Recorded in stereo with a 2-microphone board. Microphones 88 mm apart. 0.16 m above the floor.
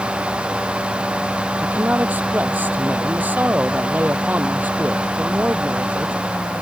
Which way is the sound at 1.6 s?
20° right (ahead or behind).